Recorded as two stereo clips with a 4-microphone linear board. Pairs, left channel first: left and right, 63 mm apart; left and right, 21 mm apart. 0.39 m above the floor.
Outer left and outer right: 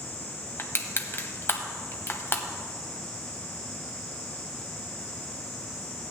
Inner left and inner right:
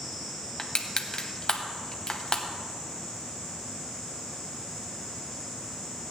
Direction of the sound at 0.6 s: 40° left (ahead or behind).